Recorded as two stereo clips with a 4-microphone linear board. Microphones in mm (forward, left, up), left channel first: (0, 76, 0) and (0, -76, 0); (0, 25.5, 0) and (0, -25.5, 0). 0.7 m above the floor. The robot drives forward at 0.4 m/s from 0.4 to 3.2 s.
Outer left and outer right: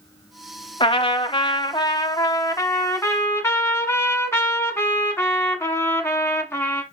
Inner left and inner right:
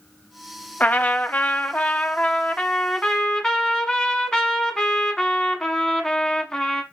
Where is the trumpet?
35° left (ahead or behind), 0.5 m; by 6.8 s 15° left (ahead or behind), 1.0 m.